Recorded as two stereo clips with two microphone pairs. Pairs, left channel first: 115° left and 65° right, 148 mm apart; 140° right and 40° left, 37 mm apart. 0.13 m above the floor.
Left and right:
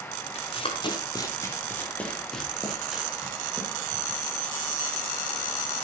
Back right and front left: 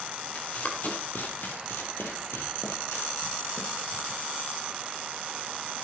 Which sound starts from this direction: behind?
Running footsteps, at 0.3 s.